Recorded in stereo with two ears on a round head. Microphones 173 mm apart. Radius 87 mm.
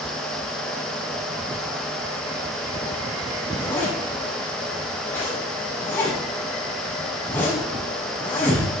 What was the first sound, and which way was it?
A zipper, 10° left (ahead or behind).